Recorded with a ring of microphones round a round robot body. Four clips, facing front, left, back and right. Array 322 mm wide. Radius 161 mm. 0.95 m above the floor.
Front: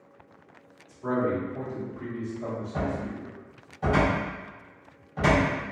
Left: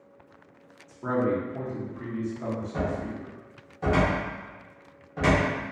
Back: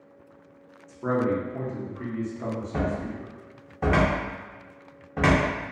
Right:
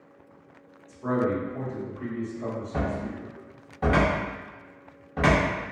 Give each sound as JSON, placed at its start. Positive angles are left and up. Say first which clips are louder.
{"t": 0.9, "sound": "a man speaking", "louder": "even, back 2 dB", "azimuth_deg": 160, "distance_m": 1.2}
{"t": 2.7, "sound": "a cupboard door", "louder": "even, back 2 dB", "azimuth_deg": -150, "distance_m": 0.7}